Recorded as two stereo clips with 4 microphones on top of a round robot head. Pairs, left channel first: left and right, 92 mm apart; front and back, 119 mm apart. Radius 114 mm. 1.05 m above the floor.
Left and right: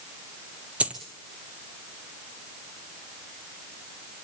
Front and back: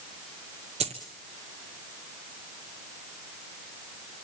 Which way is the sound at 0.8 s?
155° right.